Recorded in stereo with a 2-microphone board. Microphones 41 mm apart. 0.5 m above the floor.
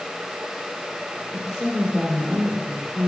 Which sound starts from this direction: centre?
A woman speaking, at 1.3 s.